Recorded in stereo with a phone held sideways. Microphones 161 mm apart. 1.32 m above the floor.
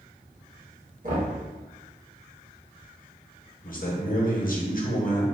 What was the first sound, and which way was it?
Knocking, 55° right (ahead or behind).